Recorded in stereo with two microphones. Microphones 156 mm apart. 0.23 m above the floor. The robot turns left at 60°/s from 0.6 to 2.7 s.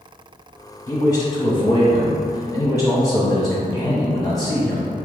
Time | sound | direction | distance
0.9 | a man speaking | 150° left | 1.5 m